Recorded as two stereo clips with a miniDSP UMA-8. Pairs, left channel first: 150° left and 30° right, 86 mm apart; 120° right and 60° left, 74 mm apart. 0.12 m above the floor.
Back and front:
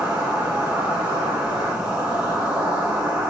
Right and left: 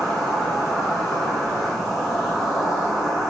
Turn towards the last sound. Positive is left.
turn(degrees=-35)